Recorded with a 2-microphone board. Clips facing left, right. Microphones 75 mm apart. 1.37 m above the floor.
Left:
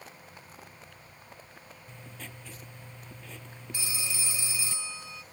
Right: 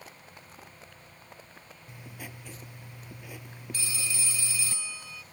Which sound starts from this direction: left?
A phone ringing, at 3.7 s.